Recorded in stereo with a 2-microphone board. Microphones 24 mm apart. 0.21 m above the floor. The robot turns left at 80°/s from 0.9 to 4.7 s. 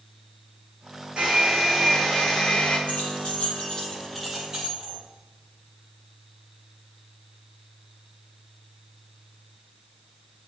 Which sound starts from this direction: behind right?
A hair dryer, at 1.2 s.